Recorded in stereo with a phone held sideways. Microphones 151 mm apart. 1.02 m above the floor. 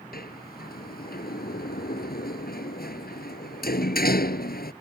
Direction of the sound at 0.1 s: 90° left.